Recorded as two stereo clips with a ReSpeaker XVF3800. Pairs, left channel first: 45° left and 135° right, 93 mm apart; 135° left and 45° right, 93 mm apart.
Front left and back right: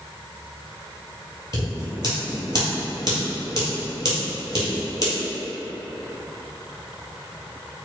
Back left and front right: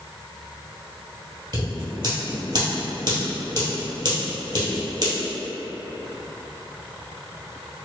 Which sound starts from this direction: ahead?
Scissors, at 1.5 s.